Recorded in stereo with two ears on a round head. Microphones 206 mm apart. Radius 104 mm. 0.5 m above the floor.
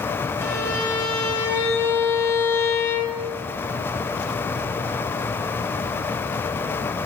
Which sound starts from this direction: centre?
A violin, at 0.4 s.